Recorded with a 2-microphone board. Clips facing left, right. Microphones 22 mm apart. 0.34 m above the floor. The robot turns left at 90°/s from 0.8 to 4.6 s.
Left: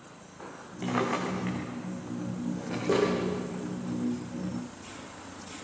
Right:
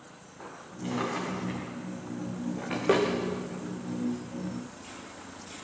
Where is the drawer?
55° left (ahead or behind), 8 m; by 3.1 s 75° right (ahead or behind), 8 m.